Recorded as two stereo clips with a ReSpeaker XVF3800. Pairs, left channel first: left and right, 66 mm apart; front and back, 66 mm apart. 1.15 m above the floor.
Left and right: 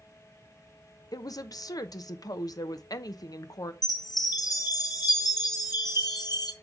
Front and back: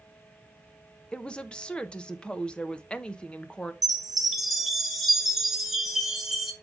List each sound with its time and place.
1.1 s a woman speaking: 75° left, 0.9 m
3.8 s a chime: 90° left, 1.7 m